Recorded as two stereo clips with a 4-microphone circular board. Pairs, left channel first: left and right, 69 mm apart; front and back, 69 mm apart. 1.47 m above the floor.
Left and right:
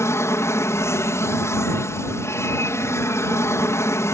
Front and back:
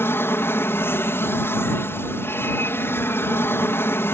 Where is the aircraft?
50° left.